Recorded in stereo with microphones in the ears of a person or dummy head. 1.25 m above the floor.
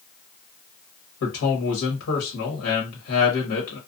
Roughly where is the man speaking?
Left.